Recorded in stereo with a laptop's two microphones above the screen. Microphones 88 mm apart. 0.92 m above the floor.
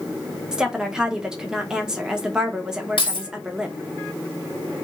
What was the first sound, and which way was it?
A woman speaking, 10° right (ahead or behind).